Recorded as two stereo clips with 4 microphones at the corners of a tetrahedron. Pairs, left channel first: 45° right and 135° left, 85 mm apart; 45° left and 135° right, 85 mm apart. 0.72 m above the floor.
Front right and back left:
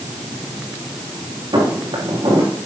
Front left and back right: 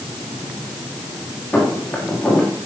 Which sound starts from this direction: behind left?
Footsteps, at 1.5 s.